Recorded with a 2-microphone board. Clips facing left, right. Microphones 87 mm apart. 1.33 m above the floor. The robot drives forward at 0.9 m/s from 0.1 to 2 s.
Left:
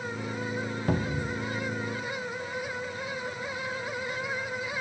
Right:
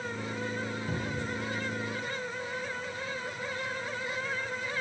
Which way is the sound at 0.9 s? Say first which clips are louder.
Left 5 dB; 55° left (ahead or behind).